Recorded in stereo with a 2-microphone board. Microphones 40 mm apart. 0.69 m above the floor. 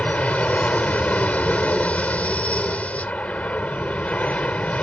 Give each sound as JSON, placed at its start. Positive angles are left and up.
{"t": 0.0, "sound": "an aircraft", "side_deg": 35}